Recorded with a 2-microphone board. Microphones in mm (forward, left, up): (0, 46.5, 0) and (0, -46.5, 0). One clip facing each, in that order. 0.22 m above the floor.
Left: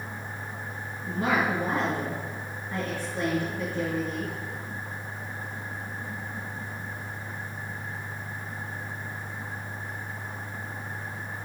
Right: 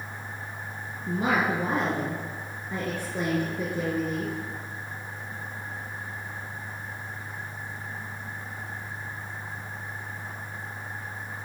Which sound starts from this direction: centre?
A woman speaking, at 1.1 s.